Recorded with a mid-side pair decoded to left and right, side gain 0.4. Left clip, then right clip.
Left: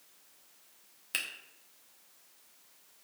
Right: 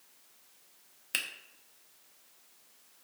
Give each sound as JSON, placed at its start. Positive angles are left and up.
{"t": 1.1, "sound": "a finger snap", "azimuth_deg": -20, "distance_m": 0.6}